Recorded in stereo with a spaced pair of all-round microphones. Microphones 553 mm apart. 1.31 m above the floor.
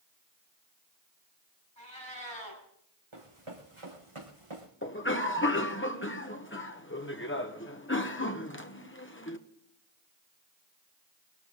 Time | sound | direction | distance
1.8 | a cat meowing | 60° left (ahead or behind) | 6 m
3.1 | running footsteps | 65° right (ahead or behind) | 4 m
4.8 | a cough | 20° left (ahead or behind) | 1.2 m